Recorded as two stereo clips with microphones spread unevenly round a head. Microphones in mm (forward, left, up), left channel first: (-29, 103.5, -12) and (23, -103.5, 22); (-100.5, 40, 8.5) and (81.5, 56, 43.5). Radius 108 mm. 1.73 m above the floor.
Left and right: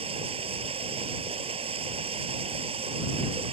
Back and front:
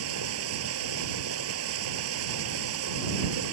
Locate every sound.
0.0 s running water: 10° right